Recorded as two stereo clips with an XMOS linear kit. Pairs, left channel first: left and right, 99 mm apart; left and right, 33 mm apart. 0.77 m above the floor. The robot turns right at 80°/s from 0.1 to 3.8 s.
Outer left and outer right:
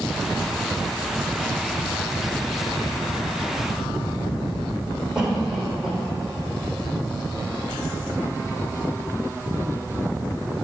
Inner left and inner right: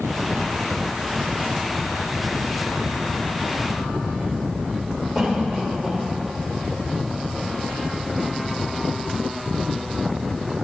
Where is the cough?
5° right (ahead or behind), 3.5 m.